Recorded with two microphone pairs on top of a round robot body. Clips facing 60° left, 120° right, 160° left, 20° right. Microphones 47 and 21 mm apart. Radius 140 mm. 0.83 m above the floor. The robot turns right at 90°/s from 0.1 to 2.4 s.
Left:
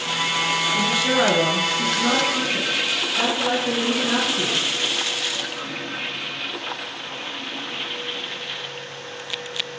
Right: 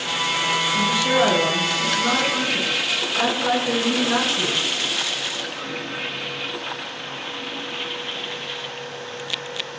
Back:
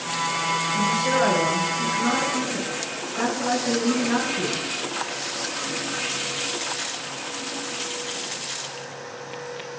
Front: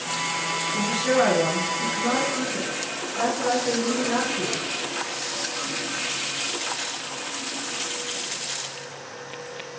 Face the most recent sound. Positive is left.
turn(degrees=130)